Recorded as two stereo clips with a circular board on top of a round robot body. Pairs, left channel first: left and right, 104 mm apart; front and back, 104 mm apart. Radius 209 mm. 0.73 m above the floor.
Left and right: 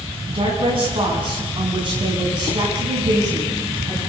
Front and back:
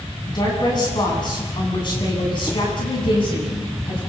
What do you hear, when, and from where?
0.3 s a woman speaking: 50° right, 9.5 m; by 4.0 s 40° right, 9.5 m